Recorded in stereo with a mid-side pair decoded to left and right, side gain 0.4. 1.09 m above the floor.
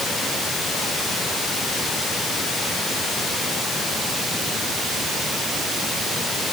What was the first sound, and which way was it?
Only background noise.